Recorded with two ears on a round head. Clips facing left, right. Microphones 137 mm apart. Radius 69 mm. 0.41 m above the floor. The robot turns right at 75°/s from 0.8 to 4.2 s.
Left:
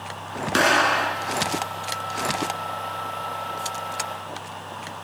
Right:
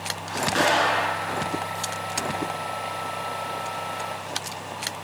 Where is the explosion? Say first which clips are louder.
Left 2 dB; 115° left, 1.7 m; by 1.4 s 160° left, 1.7 m.